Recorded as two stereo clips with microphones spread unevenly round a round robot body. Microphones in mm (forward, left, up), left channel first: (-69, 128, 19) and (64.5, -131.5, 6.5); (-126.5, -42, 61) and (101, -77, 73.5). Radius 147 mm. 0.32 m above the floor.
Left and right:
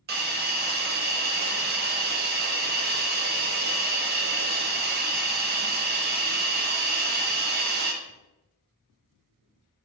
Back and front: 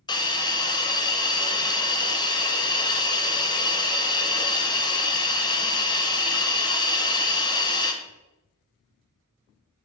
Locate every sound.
0.1 s a hiss: 115° right, 0.6 m